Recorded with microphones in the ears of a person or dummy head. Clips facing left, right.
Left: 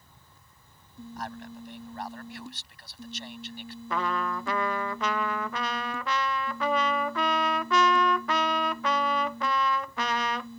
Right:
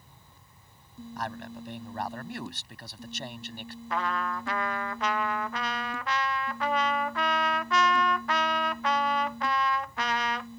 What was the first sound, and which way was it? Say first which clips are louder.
A man speaking: right 2 dB; 55° right (ahead or behind).